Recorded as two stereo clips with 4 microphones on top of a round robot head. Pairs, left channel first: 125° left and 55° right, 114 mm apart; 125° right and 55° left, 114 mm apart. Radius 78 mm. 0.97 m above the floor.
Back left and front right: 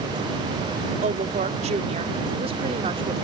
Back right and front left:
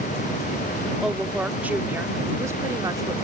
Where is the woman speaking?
30° right; by 3.1 s 5° right.